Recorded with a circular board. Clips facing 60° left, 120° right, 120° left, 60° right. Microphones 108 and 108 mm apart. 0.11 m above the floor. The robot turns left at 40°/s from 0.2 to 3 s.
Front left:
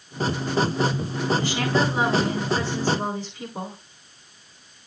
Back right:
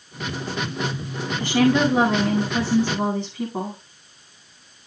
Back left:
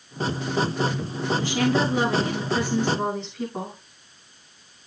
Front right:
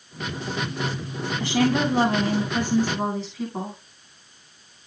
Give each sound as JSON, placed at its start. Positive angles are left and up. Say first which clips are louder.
{"t": 1.4, "sound": "a woman speaking", "louder": "back right 5 dB, front right 3 dB", "azimuth_deg": -85, "distance_m": 9.5}